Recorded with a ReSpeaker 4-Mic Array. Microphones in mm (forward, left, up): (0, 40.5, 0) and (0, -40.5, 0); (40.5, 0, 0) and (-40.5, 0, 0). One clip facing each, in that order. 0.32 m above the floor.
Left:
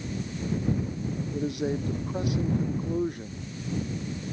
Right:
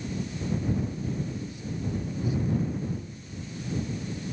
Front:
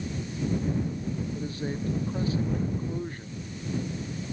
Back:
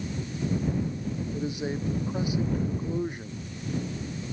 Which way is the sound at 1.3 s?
105° left.